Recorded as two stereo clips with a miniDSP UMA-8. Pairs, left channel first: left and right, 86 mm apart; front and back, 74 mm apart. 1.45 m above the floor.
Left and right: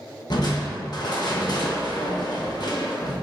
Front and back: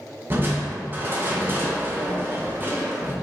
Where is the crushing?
125° left, 1.2 m.